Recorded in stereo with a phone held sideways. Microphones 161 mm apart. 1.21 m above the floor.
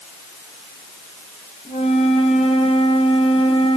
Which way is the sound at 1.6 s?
40° left (ahead or behind).